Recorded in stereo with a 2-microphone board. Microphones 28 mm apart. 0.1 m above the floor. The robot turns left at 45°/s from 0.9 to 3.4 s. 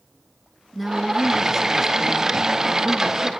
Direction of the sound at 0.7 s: Centre (ahead or behind).